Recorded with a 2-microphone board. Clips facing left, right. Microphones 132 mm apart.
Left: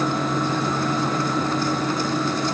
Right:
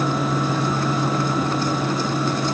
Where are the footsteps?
No footsteps in this recording.